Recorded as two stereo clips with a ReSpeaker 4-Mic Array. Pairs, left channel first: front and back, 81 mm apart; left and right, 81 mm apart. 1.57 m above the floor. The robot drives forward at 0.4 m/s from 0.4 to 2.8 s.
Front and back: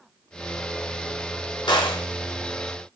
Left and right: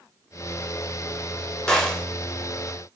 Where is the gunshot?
10° left, 0.9 m; by 2.0 s 15° left, 0.8 m.